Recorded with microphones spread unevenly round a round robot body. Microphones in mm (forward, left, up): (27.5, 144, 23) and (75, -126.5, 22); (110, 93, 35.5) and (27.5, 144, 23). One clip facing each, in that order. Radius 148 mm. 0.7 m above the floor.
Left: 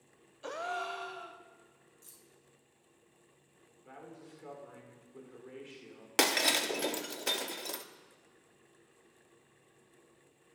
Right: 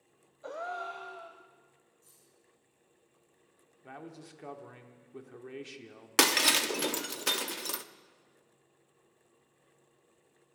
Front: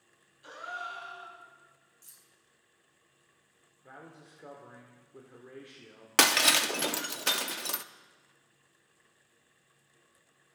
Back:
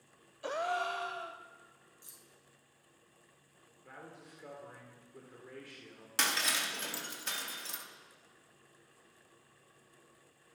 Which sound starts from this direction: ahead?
Breaking glass, at 6.2 s.